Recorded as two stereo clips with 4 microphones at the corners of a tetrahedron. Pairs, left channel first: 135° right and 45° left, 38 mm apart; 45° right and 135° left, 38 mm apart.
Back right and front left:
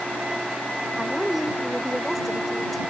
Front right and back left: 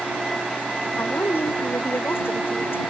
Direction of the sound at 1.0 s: 45° right.